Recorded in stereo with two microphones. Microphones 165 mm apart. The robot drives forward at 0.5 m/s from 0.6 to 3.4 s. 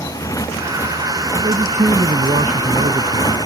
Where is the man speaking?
45° right (ahead or behind); by 3.4 s 55° right (ahead or behind).